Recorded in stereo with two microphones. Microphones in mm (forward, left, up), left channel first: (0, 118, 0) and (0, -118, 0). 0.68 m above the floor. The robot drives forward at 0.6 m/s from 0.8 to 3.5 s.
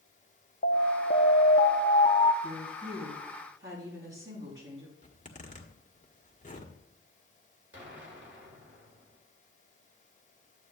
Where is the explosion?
50° right (ahead or behind), 2.5 m.